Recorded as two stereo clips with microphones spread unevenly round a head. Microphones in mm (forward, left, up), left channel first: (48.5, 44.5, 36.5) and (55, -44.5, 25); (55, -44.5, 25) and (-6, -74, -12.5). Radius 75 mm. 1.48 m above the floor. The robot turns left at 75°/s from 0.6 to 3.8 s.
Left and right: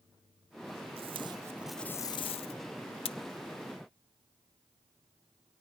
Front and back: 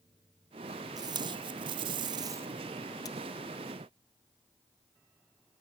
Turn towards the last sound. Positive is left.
turn(degrees=25)